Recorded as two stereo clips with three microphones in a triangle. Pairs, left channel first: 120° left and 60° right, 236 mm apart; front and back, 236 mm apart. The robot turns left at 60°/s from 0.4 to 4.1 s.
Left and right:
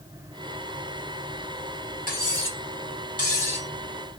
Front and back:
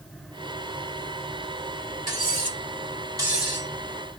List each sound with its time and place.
2.1 s cutlery clinking: 170° left, 1.2 m; by 3.7 s 75° left, 1.2 m